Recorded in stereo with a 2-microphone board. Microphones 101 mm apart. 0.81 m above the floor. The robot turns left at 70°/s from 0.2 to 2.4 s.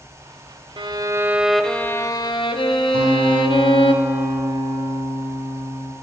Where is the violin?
120° right, 0.9 m; by 3.9 s 125° left, 0.9 m.